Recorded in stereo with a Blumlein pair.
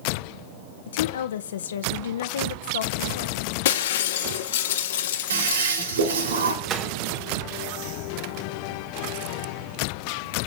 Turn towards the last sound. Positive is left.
turn(degrees=-35)